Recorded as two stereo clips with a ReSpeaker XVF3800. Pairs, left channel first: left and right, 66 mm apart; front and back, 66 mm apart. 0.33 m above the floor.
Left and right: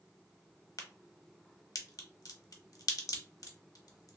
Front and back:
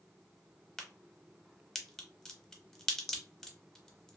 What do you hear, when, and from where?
0.8 s a crack: 80° left, 0.6 m